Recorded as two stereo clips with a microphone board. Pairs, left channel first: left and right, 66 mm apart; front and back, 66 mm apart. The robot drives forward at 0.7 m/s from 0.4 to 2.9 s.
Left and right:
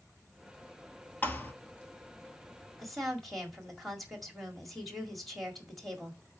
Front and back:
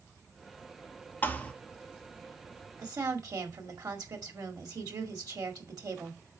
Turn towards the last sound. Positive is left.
turn(degrees=180)